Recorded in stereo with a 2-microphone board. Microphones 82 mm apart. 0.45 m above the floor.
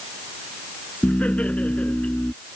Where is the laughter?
15° left (ahead or behind).